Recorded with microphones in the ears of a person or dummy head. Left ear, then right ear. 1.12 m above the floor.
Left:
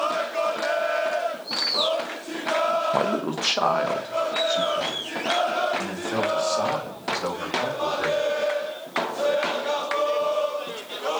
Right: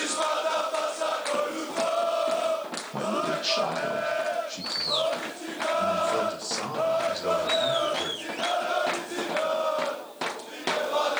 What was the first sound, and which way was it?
A man speaking, 40° left (ahead or behind).